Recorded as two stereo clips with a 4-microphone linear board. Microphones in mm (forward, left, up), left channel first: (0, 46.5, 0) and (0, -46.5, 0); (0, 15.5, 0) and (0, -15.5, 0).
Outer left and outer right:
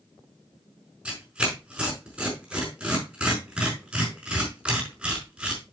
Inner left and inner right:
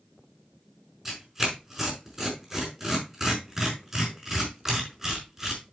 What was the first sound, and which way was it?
Tearing paper, 10° right (ahead or behind).